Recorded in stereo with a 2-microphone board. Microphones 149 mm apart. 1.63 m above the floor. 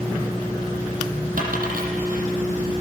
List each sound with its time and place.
1.4 s a dropped coin: 70° right (ahead or behind), 6 m